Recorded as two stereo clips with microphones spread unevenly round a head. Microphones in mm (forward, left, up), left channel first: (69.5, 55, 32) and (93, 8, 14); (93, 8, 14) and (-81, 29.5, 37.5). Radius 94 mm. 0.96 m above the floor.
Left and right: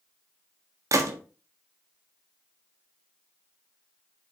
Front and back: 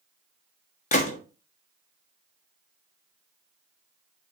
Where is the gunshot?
60° right, 1.5 m.